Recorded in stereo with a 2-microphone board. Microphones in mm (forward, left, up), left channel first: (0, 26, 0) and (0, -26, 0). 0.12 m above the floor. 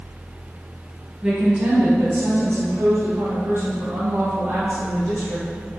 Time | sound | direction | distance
1.2 | a woman speaking | 20° right (ahead or behind) | 1.6 m